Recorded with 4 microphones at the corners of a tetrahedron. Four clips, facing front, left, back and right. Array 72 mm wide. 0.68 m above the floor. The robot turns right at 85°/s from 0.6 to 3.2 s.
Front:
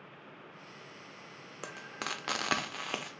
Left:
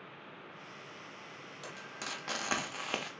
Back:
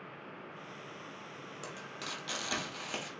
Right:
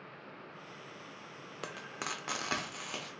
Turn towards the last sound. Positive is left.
turn(degrees=70)